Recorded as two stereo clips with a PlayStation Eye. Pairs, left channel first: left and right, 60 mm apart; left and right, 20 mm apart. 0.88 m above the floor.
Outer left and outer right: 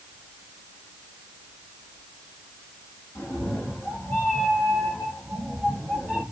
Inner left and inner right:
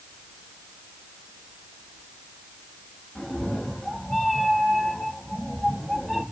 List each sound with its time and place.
3.1 s a cat meowing: 55° left (ahead or behind), 1.2 m; by 6.2 s 5° left (ahead or behind), 3 m